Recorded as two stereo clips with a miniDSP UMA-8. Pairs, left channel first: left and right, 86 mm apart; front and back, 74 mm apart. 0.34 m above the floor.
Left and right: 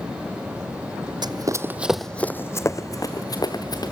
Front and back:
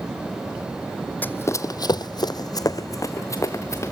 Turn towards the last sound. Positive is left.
turn(degrees=55)